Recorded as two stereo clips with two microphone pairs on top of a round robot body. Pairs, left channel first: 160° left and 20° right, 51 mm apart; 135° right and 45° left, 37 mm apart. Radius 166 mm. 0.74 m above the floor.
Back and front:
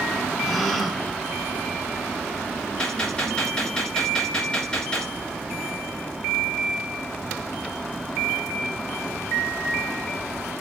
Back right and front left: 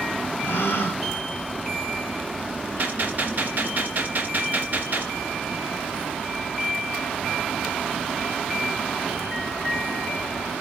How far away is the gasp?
About 1.6 m.